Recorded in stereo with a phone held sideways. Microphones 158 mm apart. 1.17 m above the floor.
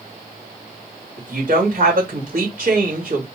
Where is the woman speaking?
65° right (ahead or behind), 2 m.